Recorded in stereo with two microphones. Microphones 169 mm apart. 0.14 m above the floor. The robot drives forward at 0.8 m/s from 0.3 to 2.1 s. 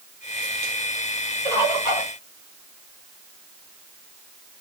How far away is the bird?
About 3.5 m.